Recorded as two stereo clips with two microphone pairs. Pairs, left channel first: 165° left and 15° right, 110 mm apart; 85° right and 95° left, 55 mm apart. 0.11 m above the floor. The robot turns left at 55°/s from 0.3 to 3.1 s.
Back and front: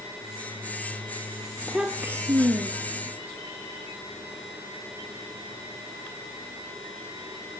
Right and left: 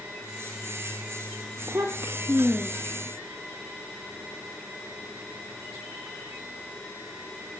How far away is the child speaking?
About 1.7 m.